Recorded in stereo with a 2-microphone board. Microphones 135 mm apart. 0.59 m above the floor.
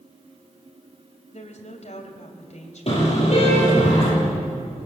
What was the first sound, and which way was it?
A woman speaking, 60° left (ahead or behind).